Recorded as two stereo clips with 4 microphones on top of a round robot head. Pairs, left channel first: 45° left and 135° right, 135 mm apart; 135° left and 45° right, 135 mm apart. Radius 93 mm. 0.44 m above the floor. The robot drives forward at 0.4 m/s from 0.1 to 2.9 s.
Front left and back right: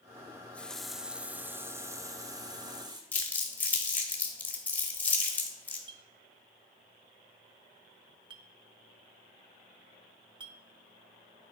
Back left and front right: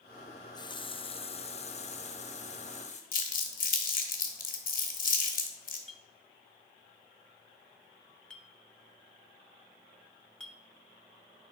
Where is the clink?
145° right, 0.8 m.